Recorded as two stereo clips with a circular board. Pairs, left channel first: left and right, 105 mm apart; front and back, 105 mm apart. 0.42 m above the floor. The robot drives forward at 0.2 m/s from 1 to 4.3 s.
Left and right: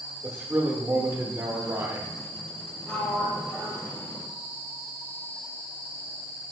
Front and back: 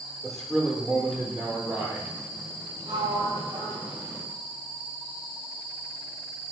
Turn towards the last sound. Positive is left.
turn(degrees=165)